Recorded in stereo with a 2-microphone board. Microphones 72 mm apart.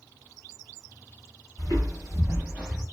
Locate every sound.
1.6 s footsteps: 55° right (ahead or behind), 1.1 m; by 2.8 s 5° right (ahead or behind), 0.6 m